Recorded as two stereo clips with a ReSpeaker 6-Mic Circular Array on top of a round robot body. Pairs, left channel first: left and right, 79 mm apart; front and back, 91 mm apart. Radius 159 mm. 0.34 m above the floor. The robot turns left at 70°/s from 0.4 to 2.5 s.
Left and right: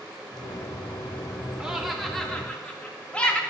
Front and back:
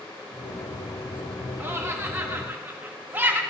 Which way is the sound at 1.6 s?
155° right.